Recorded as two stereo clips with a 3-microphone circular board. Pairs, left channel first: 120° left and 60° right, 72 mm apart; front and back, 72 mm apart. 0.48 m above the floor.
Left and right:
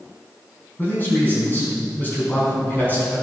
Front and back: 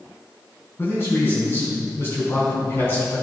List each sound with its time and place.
0.8 s a man speaking: 55° left, 4.5 m